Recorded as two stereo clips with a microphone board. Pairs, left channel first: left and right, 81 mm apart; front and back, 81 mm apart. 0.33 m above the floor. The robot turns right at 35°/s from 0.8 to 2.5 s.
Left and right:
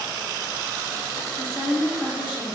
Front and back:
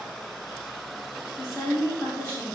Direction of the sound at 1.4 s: 55° right.